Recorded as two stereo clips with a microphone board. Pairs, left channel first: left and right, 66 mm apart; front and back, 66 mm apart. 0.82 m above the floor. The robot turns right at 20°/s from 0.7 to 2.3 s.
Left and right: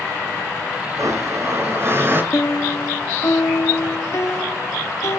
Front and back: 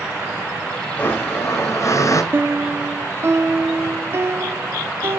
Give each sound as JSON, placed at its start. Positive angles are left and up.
{"t": 1.0, "sound": "a blender", "azimuth_deg": -60, "distance_m": 3.0}
{"t": 2.3, "sound": "a piano", "azimuth_deg": 130, "distance_m": 0.6}